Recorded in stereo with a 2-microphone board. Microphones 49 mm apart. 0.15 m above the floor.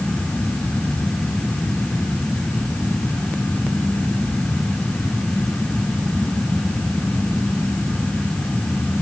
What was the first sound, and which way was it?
Only background noise.